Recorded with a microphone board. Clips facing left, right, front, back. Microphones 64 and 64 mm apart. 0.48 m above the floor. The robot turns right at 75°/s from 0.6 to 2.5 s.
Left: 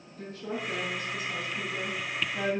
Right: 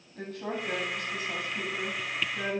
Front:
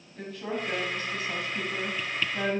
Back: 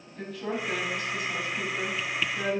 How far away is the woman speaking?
About 3.5 m.